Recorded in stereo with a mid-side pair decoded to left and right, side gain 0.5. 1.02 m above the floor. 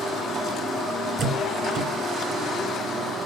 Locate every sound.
1.2 s a door slam: 50° right, 3.5 m